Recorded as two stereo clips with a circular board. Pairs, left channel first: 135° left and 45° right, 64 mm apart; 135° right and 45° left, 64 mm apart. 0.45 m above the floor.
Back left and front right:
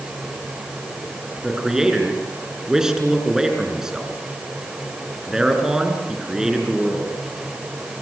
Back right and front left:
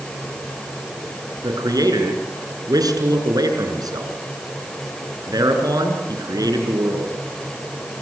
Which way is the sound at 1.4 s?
35° left.